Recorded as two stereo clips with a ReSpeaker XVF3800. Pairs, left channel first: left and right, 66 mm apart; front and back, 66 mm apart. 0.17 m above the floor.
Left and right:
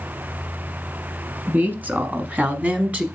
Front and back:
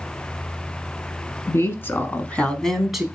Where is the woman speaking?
35° right, 1.5 m; by 3.0 s 105° right, 1.0 m.